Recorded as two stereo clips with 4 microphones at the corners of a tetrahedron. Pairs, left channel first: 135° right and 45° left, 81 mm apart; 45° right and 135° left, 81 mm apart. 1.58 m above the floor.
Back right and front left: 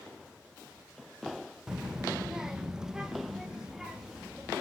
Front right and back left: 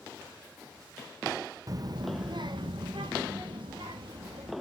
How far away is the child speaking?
About 0.6 m.